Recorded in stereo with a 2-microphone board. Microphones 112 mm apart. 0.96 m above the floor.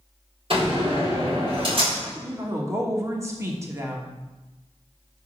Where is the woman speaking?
25° right (ahead or behind), 1.2 m.